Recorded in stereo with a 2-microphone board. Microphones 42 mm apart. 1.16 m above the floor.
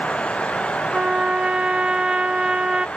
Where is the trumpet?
25° right (ahead or behind), 0.5 m.